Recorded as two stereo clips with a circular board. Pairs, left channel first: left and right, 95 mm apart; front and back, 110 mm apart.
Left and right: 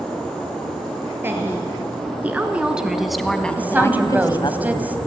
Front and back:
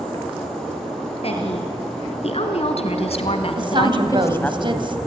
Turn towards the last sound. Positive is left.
turn(degrees=-160)